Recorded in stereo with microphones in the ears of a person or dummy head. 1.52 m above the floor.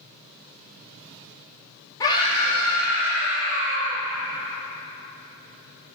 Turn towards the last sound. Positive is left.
turn(degrees=65)  # may be behind; listen again after turning